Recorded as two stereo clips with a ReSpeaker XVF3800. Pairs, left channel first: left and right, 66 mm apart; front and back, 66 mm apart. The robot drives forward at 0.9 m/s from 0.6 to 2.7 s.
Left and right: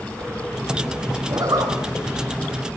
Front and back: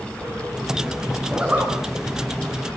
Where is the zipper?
105° right, 6.5 m; by 1.7 s 110° right, 7 m.